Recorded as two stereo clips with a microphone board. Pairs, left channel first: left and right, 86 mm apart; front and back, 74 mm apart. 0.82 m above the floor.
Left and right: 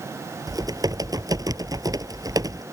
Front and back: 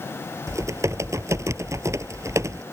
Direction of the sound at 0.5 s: 135° right.